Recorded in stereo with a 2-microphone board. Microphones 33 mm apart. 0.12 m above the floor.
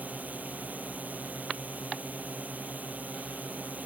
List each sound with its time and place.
0.0 s a drone: 50° right (ahead or behind)